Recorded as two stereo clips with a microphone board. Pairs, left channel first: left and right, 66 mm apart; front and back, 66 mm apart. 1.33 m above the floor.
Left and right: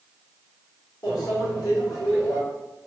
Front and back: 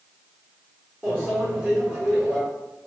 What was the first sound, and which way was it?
A microwave, 110° left.